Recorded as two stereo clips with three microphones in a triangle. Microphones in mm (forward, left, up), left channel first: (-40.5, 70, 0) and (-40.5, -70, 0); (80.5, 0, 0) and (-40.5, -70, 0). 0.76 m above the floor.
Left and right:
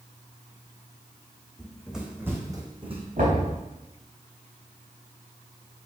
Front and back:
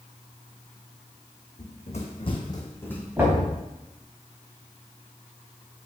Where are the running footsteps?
5° left, 2.5 m; by 3.1 s 50° right, 2 m.